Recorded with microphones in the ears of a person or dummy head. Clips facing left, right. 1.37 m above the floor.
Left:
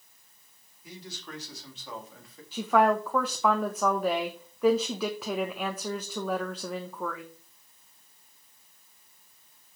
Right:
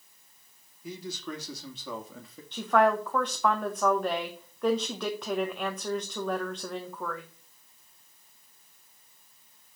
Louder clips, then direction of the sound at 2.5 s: Even; centre (ahead or behind).